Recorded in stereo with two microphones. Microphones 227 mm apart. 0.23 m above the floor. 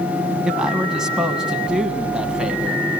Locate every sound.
0.5 s a man speaking: 5° right (ahead or behind), 1.5 m